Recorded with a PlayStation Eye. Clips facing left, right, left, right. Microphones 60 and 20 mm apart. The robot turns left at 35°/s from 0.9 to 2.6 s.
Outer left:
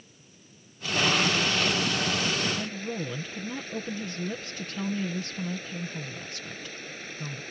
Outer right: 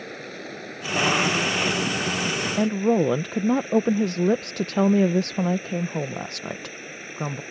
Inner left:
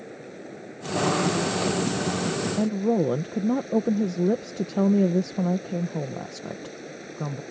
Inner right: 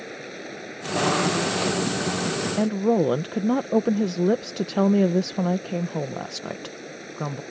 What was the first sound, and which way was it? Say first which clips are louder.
Running water: outer right 21 dB, inner right 4 dB; 105° right.